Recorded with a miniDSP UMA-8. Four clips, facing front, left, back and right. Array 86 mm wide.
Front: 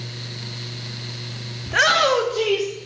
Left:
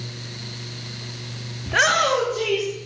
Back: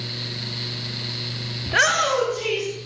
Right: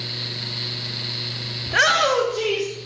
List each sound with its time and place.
1.7 s a shout: 165° left, 0.5 m; by 2.7 s 20° right, 1.5 m